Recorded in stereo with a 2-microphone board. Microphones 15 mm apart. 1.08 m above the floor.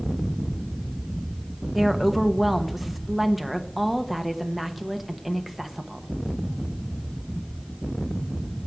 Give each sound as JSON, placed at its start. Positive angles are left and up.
{"t": 1.8, "sound": "a woman speaking", "side_deg": -15, "distance_m": 1.1}